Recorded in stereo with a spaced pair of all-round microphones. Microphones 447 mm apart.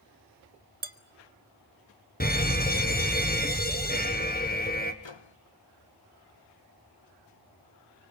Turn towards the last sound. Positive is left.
turn(degrees=75)  # may be behind; listen again after turning